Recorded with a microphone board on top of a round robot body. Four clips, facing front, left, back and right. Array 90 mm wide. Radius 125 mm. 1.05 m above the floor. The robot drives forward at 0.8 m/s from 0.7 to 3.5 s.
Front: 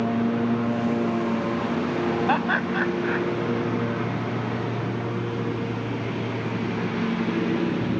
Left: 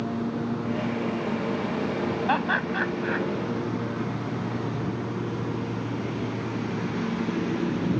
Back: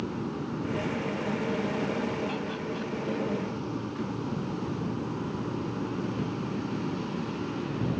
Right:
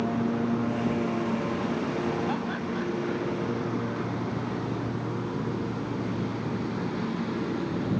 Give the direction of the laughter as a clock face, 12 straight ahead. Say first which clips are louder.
Left 5 dB, front 10 dB; 11 o'clock.